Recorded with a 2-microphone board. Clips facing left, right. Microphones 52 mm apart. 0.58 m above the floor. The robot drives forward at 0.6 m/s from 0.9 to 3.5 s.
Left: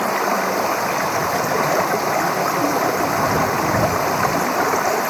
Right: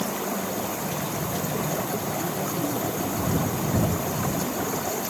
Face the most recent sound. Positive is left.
turn(degrees=80)